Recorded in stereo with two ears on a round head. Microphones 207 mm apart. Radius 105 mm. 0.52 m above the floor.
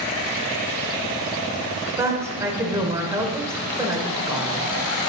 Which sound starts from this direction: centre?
A woman speaking, at 2.0 s.